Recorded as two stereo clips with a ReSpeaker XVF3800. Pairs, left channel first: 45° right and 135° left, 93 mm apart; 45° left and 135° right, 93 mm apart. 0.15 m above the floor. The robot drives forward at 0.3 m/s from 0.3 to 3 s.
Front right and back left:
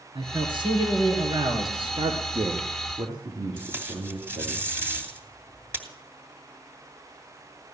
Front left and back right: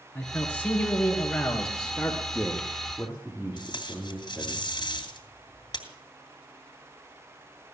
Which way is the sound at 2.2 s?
150° left.